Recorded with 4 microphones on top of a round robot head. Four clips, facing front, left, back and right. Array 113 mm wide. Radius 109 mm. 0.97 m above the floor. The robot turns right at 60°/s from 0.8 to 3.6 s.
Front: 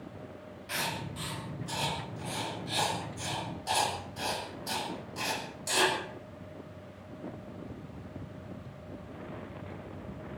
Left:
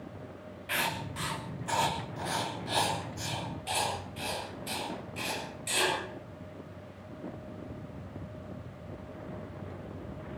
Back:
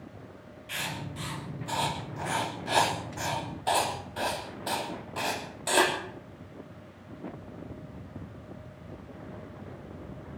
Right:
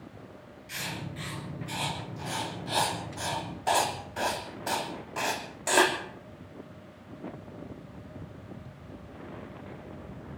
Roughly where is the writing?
Ahead left.